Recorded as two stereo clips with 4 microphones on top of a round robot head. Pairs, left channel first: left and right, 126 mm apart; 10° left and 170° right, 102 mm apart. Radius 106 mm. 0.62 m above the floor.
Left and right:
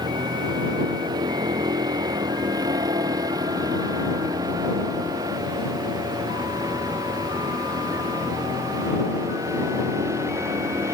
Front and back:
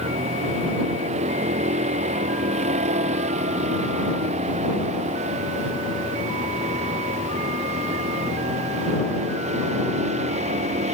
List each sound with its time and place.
0.0 s a vehicle: 155° right; by 10.9 s 165° right